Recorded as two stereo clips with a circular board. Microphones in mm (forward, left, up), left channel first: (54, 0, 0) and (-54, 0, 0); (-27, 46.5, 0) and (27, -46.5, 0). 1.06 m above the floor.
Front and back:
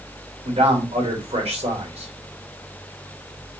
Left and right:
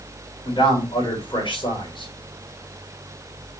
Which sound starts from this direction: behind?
A man speaking, at 0.4 s.